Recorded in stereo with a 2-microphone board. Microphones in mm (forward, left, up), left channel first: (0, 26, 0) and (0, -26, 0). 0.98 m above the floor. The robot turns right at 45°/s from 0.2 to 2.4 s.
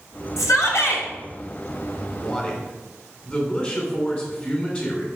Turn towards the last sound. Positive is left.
turn(degrees=30)  # may be behind; listen again after turning